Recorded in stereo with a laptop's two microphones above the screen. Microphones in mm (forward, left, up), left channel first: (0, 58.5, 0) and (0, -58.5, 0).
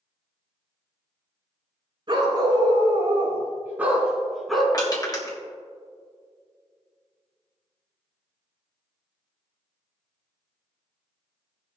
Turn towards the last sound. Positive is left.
turn(degrees=35)  # may be behind; listen again after turning